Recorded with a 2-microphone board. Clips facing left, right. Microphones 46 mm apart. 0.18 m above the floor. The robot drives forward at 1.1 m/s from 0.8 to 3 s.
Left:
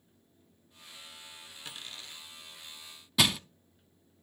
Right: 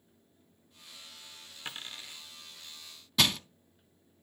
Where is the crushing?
5° left (ahead or behind), 0.5 m.